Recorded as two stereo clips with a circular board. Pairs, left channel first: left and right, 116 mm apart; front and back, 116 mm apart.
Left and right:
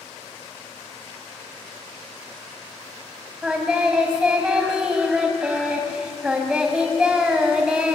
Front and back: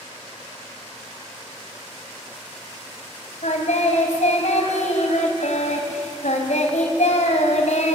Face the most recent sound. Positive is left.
turn(degrees=-5)